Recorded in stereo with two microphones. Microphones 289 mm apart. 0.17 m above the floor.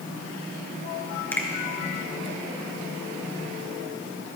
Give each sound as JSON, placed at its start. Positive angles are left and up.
{"t": 1.3, "sound": "a finger snap", "side_deg": 5, "distance_m": 2.0}